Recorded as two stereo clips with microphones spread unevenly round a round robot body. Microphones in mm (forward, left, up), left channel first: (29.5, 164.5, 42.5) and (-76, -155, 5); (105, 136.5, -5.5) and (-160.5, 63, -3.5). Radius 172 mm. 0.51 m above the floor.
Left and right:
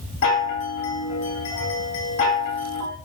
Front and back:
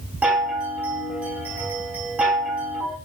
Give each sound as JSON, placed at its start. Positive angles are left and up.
{"t": 0.2, "sound": "a chime", "azimuth_deg": 110, "distance_m": 1.9}